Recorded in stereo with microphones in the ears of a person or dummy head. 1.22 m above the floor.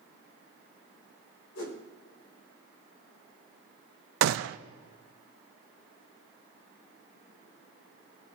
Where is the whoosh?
65° left (ahead or behind), 4.5 m.